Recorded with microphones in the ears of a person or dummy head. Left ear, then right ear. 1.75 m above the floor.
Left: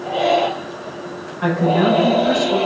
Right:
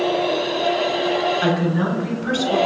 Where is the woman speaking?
45° right (ahead or behind), 1.0 m; by 2.6 s 55° right (ahead or behind), 2 m.